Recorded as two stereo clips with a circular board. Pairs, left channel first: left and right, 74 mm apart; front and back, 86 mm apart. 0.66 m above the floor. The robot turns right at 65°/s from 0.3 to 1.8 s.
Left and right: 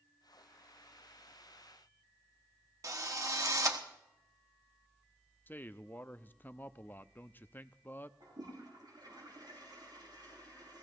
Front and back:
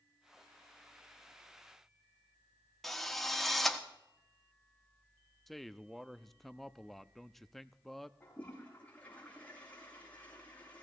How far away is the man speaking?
About 0.5 m.